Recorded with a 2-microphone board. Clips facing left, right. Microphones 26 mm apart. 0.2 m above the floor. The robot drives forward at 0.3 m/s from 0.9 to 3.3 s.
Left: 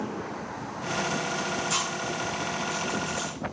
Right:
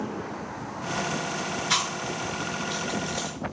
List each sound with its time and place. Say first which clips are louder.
1.7 s chewing: right 2 dB; 70° right (ahead or behind), 0.5 m; by 3.3 s 60° right (ahead or behind), 0.6 m